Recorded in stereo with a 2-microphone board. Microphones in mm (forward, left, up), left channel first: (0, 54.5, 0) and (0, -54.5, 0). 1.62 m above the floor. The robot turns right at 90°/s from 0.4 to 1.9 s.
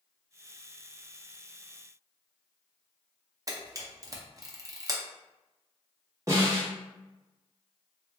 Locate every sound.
3.5 s a camera shutter: 30° right (ahead or behind), 0.7 m
6.3 s a snare drum: 30° right (ahead or behind), 1.2 m